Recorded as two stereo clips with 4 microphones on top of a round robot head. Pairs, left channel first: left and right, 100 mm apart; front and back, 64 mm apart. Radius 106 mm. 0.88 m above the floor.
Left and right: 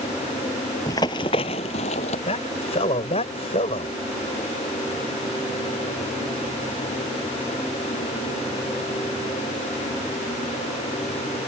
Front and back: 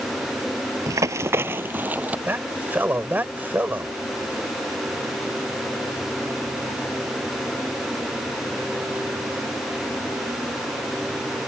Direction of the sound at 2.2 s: 120° left.